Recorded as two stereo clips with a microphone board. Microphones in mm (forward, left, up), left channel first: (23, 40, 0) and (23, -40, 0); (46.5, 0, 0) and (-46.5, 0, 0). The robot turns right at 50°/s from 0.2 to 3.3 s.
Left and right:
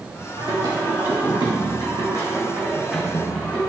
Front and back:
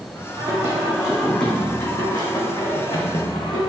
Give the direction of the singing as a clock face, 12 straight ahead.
4 o'clock.